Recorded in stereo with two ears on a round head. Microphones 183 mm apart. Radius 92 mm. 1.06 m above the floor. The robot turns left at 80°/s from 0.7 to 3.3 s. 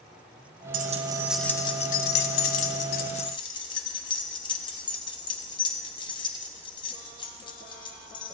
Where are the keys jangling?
50° right (ahead or behind), 0.7 m; by 8.3 s 25° left (ahead or behind), 0.7 m.